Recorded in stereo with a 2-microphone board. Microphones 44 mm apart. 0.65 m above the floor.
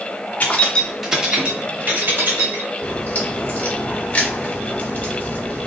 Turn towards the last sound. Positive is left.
turn(degrees=35)  # may be behind; listen again after turning